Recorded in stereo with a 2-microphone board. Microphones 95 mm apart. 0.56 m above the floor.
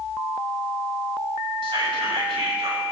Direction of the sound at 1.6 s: 75° right (ahead or behind).